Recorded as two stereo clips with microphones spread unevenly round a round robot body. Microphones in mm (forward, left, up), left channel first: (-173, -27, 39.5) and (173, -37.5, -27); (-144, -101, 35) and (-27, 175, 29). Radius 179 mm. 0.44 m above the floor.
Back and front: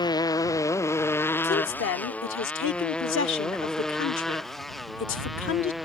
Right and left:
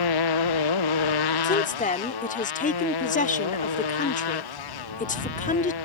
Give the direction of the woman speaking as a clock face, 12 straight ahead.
5 o'clock.